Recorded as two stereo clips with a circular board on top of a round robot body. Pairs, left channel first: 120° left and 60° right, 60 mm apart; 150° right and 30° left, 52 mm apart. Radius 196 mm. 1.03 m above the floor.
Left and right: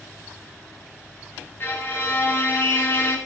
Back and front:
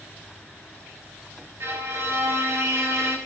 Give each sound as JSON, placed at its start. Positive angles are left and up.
{"t": 1.6, "sound": "a violin", "azimuth_deg": 65, "distance_m": 4.0}